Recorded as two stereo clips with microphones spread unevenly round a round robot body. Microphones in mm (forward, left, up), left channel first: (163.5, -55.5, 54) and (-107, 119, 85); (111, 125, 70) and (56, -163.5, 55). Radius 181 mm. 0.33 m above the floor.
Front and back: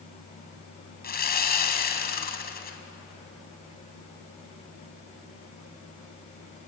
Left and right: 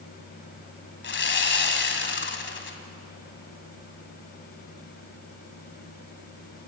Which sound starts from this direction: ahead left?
Sawing, at 1.0 s.